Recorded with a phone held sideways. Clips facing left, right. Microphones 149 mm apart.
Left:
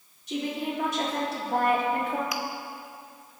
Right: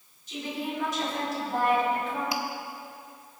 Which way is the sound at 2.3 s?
30° right (ahead or behind).